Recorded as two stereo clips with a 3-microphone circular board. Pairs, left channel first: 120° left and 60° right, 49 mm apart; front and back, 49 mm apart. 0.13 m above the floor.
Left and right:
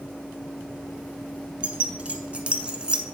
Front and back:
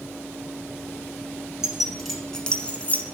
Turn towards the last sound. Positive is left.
turn(degrees=0)